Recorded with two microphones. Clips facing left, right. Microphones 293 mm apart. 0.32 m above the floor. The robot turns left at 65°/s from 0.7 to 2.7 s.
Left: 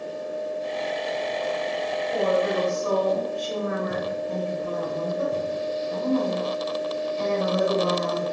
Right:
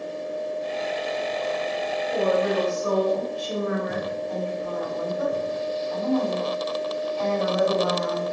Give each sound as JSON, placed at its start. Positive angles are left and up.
{"t": 2.1, "sound": "a woman speaking", "side_deg": -25, "distance_m": 1.0}
{"t": 4.3, "sound": "a woman speaking", "side_deg": 20, "distance_m": 1.6}